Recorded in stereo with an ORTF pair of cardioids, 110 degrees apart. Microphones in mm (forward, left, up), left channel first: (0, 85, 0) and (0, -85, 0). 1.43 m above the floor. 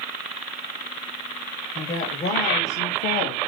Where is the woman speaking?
40° left, 1.5 m; by 3.4 s 75° left, 1.2 m.